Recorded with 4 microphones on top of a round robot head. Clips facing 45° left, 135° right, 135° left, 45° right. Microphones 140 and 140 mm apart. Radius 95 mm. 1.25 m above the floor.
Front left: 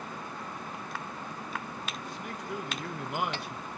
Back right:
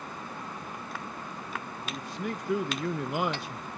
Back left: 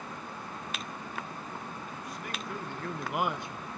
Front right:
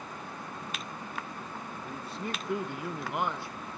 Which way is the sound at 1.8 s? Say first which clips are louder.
Back right 4 dB, front right 3 dB; 105° right.